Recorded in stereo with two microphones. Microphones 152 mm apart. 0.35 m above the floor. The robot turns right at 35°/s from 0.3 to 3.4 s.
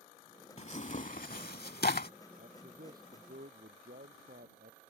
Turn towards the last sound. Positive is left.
turn(degrees=-90)